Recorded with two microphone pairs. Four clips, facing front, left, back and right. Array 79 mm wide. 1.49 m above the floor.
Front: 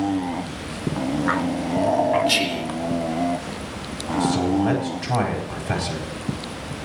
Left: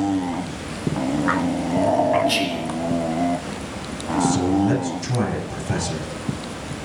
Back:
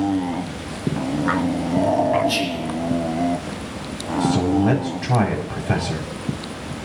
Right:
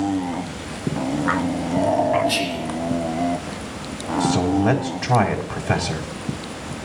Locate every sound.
2.3 s whispering: 5° left, 4.5 m
4.2 s a man speaking: 85° right, 3.5 m